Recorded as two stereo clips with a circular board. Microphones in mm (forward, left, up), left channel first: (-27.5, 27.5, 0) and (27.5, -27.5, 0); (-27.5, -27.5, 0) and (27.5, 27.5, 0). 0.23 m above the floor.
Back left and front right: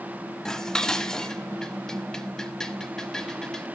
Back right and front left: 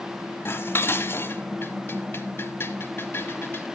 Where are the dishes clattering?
150° right, 1.0 m.